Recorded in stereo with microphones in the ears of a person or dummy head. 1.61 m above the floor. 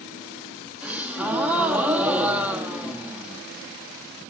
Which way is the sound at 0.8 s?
5° right (ahead or behind).